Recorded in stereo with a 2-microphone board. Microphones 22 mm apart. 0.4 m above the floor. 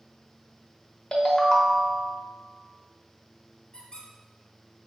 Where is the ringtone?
40° left (ahead or behind), 0.6 m.